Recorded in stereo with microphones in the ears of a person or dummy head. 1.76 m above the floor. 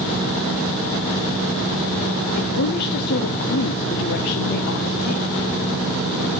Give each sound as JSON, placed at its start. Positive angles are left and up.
{"t": 2.4, "sound": "a woman speaking", "side_deg": 45, "distance_m": 0.7}